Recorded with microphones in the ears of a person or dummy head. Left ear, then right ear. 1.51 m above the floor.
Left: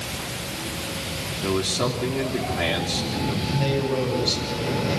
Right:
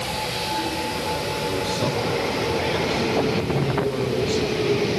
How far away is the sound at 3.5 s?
About 9.5 m.